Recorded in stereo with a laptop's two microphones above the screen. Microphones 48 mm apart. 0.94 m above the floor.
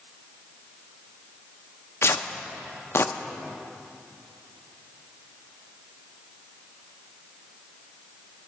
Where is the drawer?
No drawer in this recording.